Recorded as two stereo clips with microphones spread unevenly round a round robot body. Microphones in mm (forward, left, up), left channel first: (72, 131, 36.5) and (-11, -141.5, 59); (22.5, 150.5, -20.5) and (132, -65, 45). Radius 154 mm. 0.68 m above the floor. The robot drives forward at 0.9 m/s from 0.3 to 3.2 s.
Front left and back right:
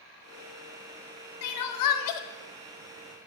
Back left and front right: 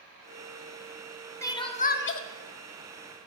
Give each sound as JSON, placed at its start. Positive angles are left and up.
{"t": 1.4, "sound": "crying", "azimuth_deg": 40, "distance_m": 1.0}